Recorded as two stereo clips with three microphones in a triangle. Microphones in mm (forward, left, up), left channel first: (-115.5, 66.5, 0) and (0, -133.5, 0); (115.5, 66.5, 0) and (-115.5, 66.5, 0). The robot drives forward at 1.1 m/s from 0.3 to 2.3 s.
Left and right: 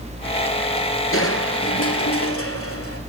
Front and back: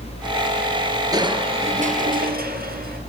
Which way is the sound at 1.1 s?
105° left.